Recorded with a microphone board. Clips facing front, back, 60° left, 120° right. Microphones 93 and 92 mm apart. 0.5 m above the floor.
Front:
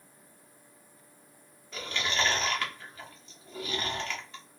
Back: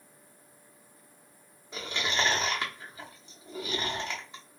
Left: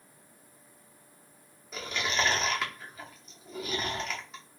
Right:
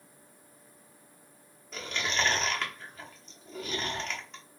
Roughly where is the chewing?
Behind left.